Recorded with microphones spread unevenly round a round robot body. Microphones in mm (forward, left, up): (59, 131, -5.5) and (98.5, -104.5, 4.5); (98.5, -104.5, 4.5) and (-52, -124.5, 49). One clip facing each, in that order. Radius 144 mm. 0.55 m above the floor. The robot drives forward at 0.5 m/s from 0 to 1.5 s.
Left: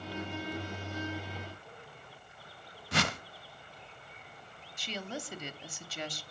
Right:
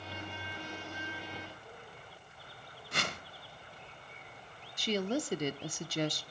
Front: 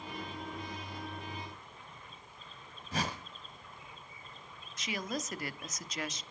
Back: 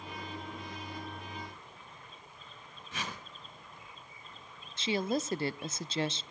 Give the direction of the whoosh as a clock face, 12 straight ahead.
9 o'clock.